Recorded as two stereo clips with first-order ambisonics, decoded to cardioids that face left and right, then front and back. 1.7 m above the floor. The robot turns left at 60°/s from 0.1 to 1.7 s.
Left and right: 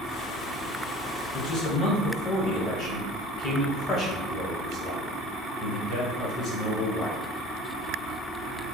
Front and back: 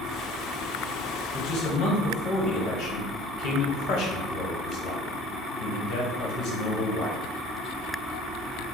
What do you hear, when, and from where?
1.3 s a man speaking: 55° left, 1.1 m; by 7.2 s 35° left, 1.1 m